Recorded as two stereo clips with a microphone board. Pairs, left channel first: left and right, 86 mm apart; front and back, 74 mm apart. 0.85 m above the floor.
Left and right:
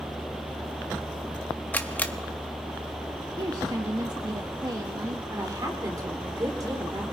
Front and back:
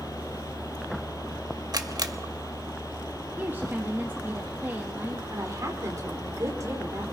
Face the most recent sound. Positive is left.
turn(degrees=-135)